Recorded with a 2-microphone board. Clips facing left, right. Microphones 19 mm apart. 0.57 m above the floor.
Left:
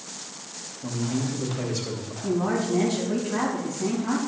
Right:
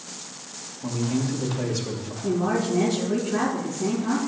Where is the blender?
I don't hear a blender.